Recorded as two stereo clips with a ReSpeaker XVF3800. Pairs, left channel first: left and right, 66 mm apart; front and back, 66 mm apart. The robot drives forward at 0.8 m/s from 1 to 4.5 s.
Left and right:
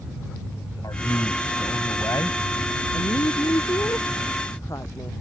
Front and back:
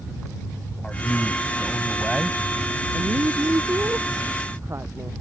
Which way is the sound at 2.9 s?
125° left.